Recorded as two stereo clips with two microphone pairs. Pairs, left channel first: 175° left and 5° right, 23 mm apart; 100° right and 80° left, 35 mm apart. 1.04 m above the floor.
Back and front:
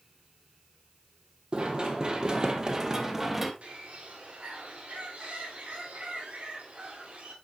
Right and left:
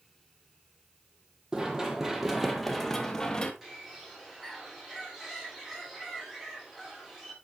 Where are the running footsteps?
20° left, 1.5 m; by 3.5 s 60° right, 1.1 m.